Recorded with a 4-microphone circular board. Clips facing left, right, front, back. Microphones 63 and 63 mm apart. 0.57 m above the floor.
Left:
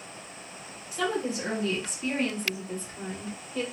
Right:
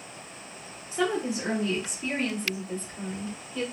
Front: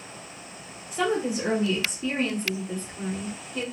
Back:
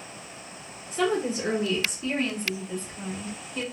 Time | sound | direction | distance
0.9 | a woman speaking | 80° right | 1.2 m